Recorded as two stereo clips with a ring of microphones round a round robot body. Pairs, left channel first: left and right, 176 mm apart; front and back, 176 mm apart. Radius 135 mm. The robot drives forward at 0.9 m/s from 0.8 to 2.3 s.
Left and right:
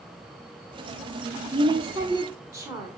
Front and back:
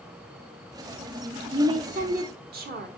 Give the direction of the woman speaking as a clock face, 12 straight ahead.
4 o'clock.